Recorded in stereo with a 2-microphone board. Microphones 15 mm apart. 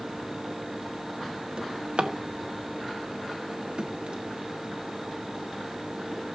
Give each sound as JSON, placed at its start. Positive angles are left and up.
{"t": 1.6, "sound": "a drawer", "side_deg": -60, "distance_m": 1.3}